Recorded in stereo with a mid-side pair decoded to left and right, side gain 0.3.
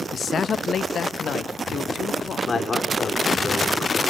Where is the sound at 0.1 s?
65° left, 0.6 m; by 2.6 s 75° left, 1.8 m.